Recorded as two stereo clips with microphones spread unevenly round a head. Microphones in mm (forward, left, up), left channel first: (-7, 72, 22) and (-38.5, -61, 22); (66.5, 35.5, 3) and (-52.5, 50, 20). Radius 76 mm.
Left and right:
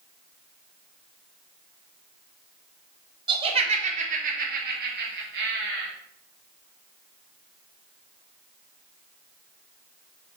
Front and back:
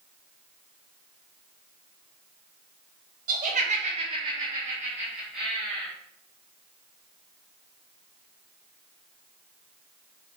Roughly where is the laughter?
Behind.